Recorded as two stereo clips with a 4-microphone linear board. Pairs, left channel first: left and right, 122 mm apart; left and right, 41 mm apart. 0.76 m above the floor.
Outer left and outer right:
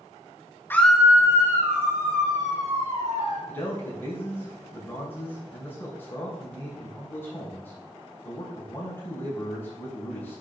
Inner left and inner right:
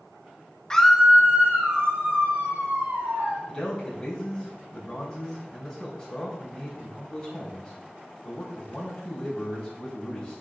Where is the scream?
20° left (ahead or behind), 0.7 m; by 3.4 s 55° right (ahead or behind), 3 m.